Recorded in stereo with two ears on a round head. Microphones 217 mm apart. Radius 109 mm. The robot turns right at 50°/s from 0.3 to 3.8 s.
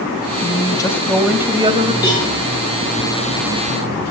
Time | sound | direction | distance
0.4 | a woman speaking | 145° left | 2 m
2.0 | a cowbell | 15° left (ahead or behind) | 9 m